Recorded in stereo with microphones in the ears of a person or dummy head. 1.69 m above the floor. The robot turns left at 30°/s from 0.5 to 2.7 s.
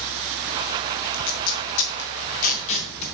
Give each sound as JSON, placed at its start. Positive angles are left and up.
{"t": 1.1, "sound": "tape being pulled", "side_deg": 80, "distance_m": 1.3}